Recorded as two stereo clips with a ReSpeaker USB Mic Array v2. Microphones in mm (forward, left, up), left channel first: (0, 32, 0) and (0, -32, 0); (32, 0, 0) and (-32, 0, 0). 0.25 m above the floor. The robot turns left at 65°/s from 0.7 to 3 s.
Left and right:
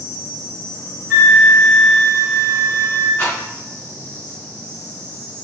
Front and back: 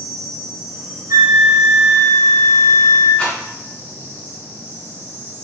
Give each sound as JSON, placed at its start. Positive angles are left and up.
{"t": 0.0, "sound": "an insect", "azimuth_deg": 95, "distance_m": 0.9}
{"t": 1.1, "sound": "a flute", "azimuth_deg": -170, "distance_m": 1.1}
{"t": 3.2, "sound": "a rattle", "azimuth_deg": 60, "distance_m": 1.4}